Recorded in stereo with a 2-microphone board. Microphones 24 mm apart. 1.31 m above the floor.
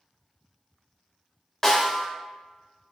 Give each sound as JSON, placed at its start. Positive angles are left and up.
{"t": 1.6, "sound": "a snare drum", "side_deg": 20, "distance_m": 0.6}